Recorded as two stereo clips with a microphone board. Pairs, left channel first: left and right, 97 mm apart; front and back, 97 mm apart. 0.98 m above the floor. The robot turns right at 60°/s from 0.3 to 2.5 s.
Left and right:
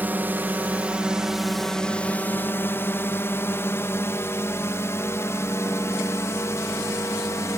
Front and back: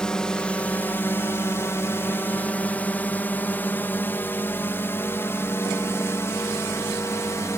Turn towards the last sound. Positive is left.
turn(degrees=45)